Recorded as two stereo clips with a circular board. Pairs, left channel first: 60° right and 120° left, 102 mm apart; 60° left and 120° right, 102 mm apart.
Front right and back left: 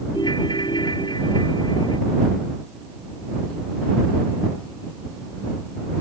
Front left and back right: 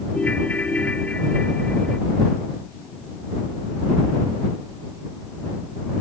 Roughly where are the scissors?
No scissors in this recording.